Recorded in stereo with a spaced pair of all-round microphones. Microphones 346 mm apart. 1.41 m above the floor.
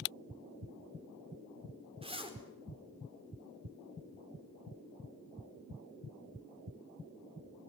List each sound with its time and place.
2.0 s a zipper: 15° right (ahead or behind), 4 m